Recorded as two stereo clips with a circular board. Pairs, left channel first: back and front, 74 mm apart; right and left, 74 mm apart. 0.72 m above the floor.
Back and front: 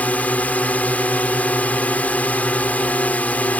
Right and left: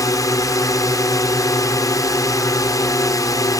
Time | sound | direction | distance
0.0 | a drone | 115° right | ?